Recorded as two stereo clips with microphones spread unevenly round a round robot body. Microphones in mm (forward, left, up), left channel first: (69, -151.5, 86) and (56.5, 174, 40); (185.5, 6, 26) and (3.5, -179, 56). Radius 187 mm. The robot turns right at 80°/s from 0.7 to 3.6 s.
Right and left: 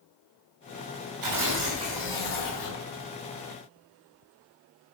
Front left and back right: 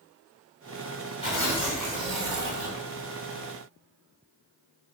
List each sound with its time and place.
1.2 s tearing paper: 115° left, 3 m; by 2.9 s 115° right, 3 m